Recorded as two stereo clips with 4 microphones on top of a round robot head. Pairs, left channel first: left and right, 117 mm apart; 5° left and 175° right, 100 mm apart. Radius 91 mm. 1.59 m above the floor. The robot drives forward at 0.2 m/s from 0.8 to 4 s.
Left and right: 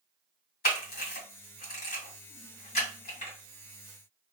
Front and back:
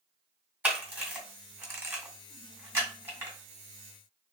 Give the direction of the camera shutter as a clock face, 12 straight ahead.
8 o'clock.